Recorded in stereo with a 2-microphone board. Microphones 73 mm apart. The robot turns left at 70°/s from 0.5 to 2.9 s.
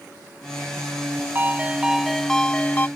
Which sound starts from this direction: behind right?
A ringtone, at 1.4 s.